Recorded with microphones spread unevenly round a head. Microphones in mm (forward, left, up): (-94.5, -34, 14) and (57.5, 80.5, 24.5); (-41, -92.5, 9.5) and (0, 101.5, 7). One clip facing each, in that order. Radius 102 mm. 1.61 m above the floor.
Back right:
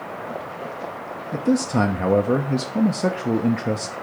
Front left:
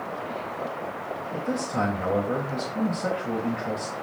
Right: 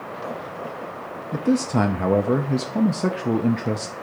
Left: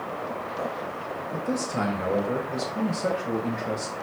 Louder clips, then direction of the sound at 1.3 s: Back right 9 dB, right 9 dB; 105° right.